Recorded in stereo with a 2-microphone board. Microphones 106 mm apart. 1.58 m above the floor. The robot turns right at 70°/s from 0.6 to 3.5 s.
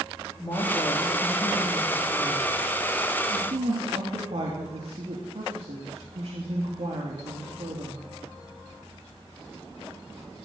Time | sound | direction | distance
0.4 | a woman speaking | 45° left | 3 m